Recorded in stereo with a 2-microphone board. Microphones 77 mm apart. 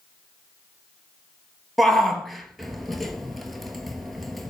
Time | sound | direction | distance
1.8 | a shout | centre (ahead or behind) | 2.5 m